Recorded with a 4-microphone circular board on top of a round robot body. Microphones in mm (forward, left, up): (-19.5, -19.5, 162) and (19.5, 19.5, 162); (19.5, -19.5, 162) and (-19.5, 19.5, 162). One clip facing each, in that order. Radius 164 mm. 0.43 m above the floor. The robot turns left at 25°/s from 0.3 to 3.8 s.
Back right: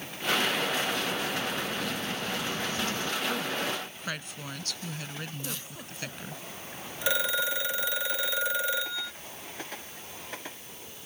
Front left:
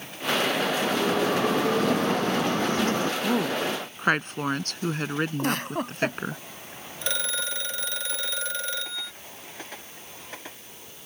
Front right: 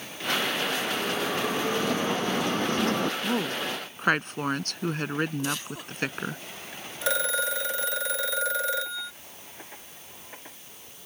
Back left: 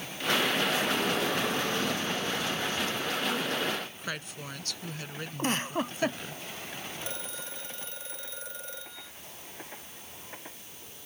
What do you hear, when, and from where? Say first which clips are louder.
0.8 s a bell: front left 7 dB, even; 50° left; by 3.1 s 10° right
3.2 s a woman speaking: front left 6 dB, front right 2 dB; 15° left; by 6.4 s straight ahead
5.4 s a giggle: front left 14 dB, back left 2 dB; 80° left
7.0 s a phone ringing: back right 3 dB, front right 13 dB; 55° right